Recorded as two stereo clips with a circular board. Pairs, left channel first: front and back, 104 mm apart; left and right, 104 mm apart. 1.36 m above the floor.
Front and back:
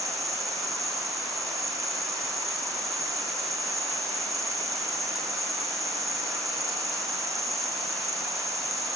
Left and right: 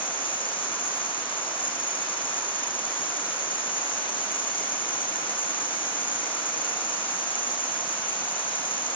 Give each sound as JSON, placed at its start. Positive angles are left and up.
{"t": 0.0, "sound": "an insect", "azimuth_deg": 125, "distance_m": 1.7}